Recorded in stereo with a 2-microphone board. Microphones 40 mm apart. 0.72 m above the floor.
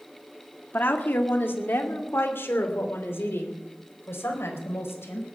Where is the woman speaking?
50° left (ahead or behind), 1.8 m; by 5.3 s 80° left, 4.5 m.